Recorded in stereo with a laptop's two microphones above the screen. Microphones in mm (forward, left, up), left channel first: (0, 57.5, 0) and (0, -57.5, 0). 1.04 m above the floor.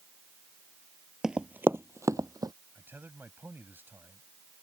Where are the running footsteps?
5° right (ahead or behind); by 2.5 s 30° right (ahead or behind).